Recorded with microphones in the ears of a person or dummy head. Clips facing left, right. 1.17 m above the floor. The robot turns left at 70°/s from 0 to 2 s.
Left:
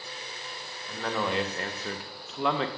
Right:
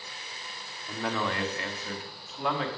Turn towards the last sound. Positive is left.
turn(degrees=120)